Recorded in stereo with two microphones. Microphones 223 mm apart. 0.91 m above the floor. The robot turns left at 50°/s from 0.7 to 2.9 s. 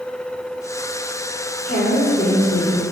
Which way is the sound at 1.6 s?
45° left.